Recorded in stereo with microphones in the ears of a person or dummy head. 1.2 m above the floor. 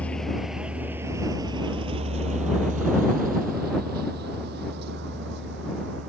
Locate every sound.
0.0 s a vehicle: 10° left (ahead or behind); by 6.1 s 70° right (ahead or behind)